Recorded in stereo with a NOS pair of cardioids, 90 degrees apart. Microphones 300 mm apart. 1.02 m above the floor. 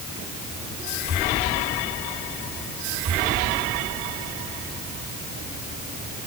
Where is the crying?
No crying in this recording.